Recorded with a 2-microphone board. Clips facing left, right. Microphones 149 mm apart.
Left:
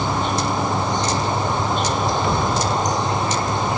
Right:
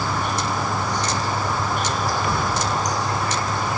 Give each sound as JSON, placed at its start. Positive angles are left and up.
{"t": 0.0, "sound": "an insect", "side_deg": 20, "distance_m": 1.6}